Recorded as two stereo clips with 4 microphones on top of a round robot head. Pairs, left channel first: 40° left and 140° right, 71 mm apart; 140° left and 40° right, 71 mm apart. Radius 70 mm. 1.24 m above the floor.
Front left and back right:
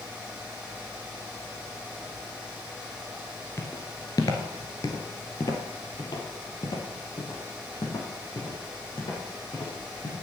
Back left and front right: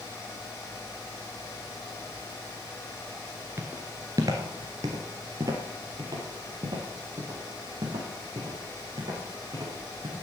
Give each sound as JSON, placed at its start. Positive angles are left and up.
{"t": 3.6, "sound": "footsteps", "azimuth_deg": 0, "distance_m": 1.2}